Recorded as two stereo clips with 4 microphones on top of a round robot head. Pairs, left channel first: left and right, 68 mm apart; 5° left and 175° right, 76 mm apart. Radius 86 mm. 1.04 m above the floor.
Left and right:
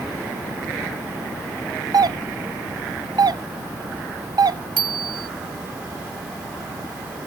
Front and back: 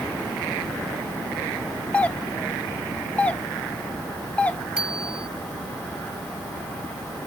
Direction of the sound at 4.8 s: 90° right.